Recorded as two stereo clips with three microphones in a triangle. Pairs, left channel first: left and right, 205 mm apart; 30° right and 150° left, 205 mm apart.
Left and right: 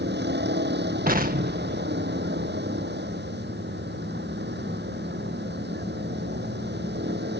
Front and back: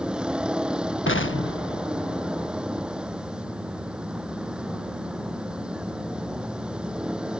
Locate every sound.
0.0 s a vehicle: 125° right
1.1 s an explosion: 45° right